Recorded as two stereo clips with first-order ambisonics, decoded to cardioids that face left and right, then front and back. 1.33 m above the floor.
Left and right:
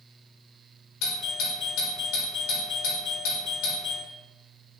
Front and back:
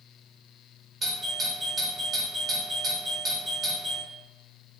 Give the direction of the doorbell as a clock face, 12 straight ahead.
8 o'clock.